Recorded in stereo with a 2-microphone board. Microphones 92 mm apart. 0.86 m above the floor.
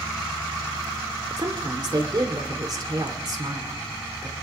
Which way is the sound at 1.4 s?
50° right (ahead or behind).